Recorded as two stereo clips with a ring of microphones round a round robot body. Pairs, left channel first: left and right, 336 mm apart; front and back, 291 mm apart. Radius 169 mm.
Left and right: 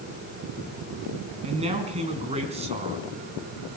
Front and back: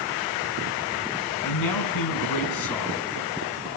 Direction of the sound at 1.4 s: 20° right.